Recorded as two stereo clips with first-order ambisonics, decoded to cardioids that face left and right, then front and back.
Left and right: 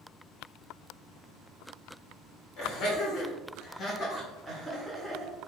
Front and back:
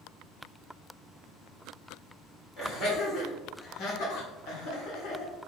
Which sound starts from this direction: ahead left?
Laughter, at 2.6 s.